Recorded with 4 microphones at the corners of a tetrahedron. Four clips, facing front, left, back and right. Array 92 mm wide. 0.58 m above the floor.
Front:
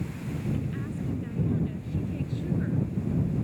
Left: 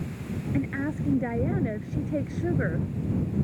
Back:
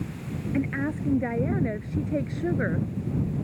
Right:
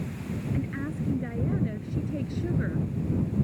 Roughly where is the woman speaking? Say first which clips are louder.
Left 6 dB, back 6 dB; behind left.